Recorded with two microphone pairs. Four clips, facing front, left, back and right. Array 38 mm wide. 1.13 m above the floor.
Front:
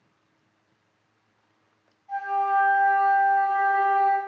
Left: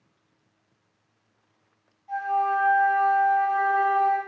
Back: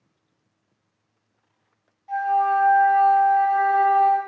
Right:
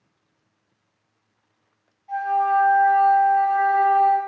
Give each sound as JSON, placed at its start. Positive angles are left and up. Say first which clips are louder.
{"t": 2.1, "sound": "a flute", "louder": "right 4 dB, back 4 dB", "azimuth_deg": 180, "distance_m": 1.2}